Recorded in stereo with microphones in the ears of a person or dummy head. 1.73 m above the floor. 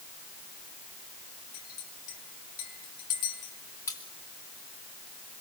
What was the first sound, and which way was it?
A clink, 50° left (ahead or behind).